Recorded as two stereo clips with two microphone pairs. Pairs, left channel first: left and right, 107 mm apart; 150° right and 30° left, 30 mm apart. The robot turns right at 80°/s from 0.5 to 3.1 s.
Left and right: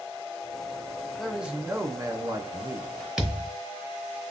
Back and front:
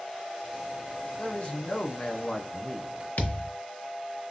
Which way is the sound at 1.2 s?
175° left.